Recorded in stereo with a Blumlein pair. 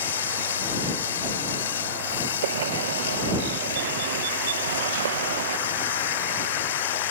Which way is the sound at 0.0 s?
65° left.